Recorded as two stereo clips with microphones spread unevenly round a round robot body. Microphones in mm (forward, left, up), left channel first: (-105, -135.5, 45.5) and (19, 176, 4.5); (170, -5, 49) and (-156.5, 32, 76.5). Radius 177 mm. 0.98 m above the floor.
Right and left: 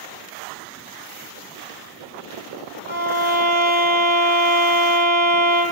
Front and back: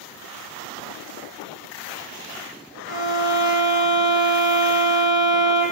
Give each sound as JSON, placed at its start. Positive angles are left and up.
{"t": 2.9, "sound": "a violin", "azimuth_deg": 115, "distance_m": 1.5}